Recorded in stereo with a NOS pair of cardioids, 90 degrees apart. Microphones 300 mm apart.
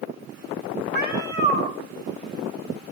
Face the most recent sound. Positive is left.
turn(degrees=-30)